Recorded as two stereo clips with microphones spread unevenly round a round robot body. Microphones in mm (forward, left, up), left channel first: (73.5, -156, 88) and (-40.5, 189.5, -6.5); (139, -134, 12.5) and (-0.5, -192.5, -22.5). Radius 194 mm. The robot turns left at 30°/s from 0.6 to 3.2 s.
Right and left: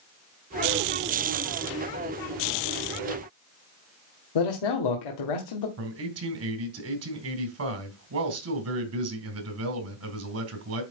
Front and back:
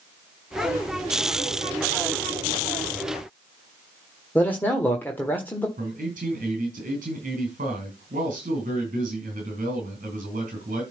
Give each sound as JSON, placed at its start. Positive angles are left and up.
{"t": 4.3, "sound": "a man speaking", "azimuth_deg": -65, "distance_m": 1.5}
{"t": 5.8, "sound": "a man speaking", "azimuth_deg": 150, "distance_m": 2.5}